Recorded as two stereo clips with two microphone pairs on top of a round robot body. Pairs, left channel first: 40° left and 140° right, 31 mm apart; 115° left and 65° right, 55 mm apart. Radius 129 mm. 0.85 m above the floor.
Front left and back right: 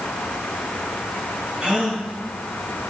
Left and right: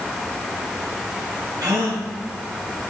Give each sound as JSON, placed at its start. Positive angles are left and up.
{"t": 1.6, "sound": "a gasp", "azimuth_deg": -80, "distance_m": 3.5}